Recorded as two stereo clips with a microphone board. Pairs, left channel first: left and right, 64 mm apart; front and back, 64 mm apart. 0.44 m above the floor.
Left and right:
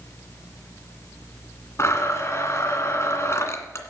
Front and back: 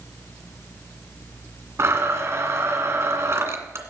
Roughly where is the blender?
Behind left.